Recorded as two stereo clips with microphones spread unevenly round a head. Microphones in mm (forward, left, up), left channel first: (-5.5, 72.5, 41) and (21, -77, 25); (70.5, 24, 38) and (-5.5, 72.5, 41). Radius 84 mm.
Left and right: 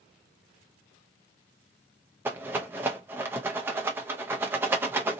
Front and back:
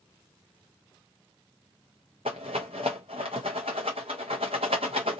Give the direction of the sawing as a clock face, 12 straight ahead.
I don't hear sawing.